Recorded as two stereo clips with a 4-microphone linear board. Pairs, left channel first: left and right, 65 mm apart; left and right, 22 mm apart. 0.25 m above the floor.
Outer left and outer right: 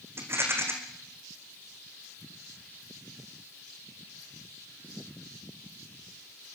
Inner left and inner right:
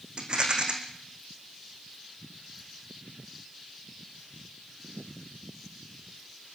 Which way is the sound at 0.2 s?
40° right (ahead or behind).